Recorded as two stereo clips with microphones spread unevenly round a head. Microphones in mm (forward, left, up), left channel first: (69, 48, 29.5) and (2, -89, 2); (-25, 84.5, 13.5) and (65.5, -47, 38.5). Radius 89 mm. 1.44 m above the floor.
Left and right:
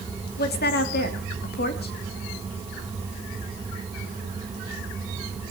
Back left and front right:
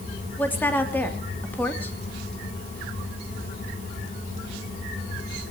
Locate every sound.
0.4 s a woman speaking: 45° left, 3 m